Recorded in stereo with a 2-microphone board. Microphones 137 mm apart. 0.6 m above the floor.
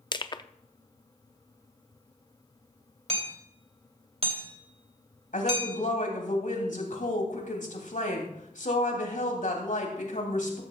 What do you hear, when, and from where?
0.1 s crushing: 35° left (ahead or behind), 0.5 m
3.1 s hammering: 50° right (ahead or behind), 2.5 m
5.3 s a woman speaking: 70° left (ahead or behind), 3 m